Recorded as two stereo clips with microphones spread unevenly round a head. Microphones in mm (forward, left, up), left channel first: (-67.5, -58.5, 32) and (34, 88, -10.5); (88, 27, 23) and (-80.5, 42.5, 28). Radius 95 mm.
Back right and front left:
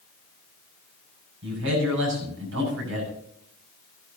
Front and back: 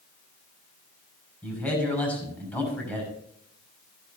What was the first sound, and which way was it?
A man speaking, 75° left.